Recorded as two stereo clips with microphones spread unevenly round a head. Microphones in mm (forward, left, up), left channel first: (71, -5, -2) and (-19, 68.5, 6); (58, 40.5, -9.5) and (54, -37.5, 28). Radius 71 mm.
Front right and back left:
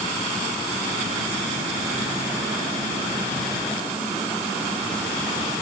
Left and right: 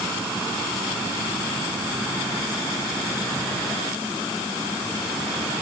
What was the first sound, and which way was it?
Only background noise.